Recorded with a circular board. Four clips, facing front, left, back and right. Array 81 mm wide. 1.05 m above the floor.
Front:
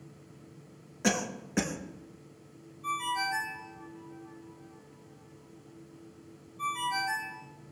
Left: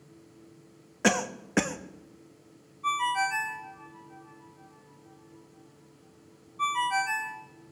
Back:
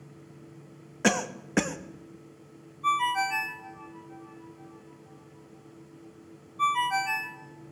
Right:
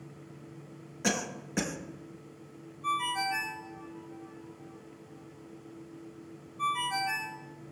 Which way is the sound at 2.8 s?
155° left.